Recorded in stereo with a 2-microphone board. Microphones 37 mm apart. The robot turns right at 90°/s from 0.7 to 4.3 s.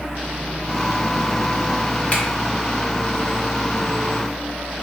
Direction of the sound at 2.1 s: 35° left (ahead or behind).